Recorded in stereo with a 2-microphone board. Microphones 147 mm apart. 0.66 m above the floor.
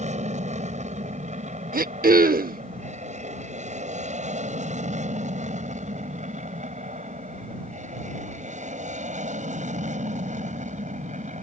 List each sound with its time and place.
0.0 s an aircraft: 50° right (ahead or behind); by 11.4 s 55° right (ahead or behind)
1.7 s throat clearing: 80° right